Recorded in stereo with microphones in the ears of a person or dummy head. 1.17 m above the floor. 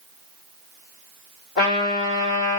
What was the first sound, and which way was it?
A trumpet, 60° left (ahead or behind).